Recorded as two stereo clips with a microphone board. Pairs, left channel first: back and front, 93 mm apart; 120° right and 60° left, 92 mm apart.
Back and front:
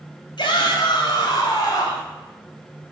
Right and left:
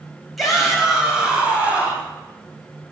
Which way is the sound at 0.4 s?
150° left.